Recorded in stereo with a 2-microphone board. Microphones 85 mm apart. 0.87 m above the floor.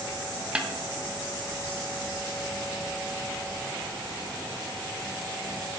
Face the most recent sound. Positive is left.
turn(degrees=-10)  # may be behind; listen again after turning